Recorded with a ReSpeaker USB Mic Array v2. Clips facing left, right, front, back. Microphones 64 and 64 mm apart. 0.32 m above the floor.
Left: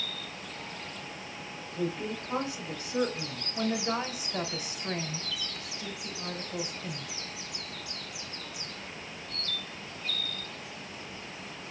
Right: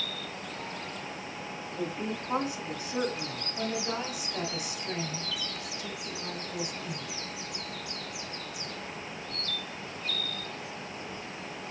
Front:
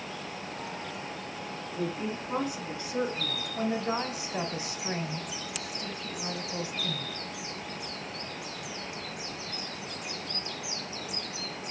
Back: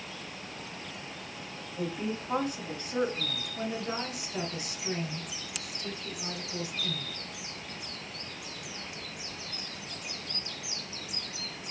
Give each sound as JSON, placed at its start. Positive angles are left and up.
{"t": 1.6, "sound": "a woman speaking", "azimuth_deg": -155, "distance_m": 2.0}
{"t": 3.5, "sound": "a woman speaking", "azimuth_deg": 45, "distance_m": 1.1}